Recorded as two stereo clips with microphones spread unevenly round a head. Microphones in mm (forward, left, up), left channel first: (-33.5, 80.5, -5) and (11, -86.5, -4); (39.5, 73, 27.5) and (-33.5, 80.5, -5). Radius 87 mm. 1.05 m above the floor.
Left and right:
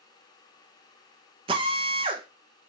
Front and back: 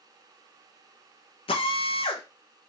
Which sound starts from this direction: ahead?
A drill, at 1.5 s.